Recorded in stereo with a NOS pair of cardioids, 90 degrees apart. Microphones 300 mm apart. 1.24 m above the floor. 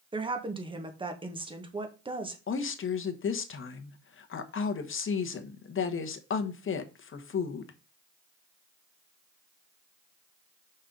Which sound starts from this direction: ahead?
A woman speaking, at 0.1 s.